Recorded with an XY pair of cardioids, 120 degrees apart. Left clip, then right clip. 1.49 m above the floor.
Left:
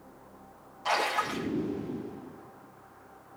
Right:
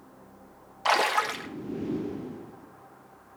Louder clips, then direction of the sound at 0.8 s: Right 4 dB; 55° right.